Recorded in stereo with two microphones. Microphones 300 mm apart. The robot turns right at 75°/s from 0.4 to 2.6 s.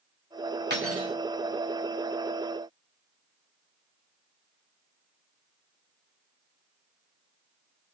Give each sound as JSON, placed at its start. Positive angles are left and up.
{"t": 0.7, "sound": "cutlery clinking", "azimuth_deg": -145, "distance_m": 1.8}